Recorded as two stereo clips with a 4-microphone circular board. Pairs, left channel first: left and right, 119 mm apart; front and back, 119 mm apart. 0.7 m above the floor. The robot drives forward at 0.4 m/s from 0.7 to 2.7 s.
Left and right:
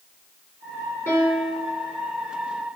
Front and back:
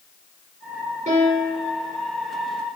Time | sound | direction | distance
1.1 | a piano | 160° left | 5.5 m